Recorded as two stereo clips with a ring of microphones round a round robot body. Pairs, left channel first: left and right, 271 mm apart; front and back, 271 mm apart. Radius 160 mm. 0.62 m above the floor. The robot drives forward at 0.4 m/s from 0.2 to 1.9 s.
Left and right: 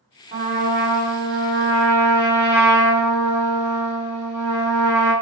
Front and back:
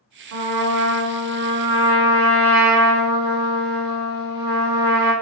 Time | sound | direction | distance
0.3 | a trumpet | 150° right | 1.1 m